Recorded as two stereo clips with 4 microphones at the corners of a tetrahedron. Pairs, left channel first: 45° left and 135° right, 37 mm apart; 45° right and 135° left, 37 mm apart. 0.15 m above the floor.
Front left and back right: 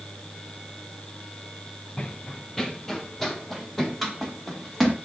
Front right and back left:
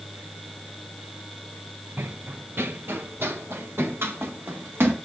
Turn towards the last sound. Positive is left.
turn(degrees=130)